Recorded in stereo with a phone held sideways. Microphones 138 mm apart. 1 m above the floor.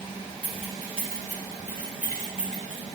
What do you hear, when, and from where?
0.4 s keys jangling: 60° right (ahead or behind), 3 m; by 2.8 s 70° right (ahead or behind), 4 m